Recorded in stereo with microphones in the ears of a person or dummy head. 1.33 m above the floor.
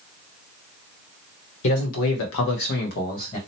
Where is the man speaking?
65° left (ahead or behind), 0.9 m; by 3.4 s 35° left (ahead or behind), 1.1 m.